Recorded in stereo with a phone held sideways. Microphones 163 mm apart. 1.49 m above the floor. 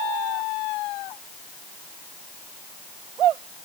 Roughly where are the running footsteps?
No running footsteps in this recording.